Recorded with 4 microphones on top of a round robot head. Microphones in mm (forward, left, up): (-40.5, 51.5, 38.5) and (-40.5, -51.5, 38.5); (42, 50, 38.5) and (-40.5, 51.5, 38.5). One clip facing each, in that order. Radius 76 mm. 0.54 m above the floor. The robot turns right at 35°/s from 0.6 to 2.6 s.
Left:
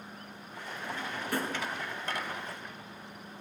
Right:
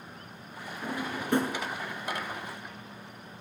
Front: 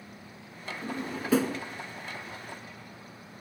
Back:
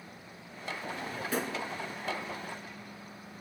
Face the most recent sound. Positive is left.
turn(degrees=30)